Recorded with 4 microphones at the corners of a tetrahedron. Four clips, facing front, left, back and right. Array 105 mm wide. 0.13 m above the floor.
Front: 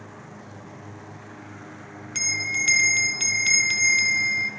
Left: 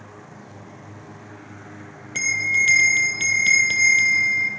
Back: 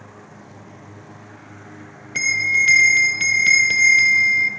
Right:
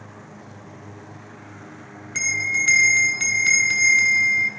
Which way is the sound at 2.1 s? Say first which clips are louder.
Left 2 dB, back 9 dB; 155° left.